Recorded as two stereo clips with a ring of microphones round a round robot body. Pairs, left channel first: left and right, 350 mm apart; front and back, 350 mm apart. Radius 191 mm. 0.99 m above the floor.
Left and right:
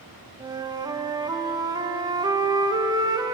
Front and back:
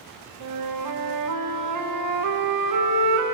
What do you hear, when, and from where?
0.4 s a flute: 170° right, 1.0 m